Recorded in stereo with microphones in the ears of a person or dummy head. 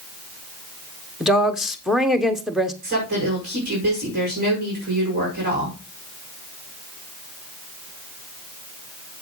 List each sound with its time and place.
1.2 s a woman speaking: 5° right (ahead or behind), 1.0 m
2.8 s a woman speaking: 50° right (ahead or behind), 5 m